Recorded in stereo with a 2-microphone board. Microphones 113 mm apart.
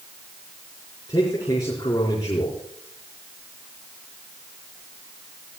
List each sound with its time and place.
1.1 s a man speaking: 30° left (ahead or behind), 5 m